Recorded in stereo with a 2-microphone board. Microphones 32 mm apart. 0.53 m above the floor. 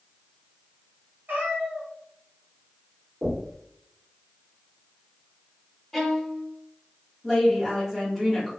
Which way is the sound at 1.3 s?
80° right.